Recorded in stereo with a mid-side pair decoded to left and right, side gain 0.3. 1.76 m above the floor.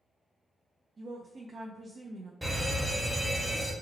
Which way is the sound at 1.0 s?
60° right.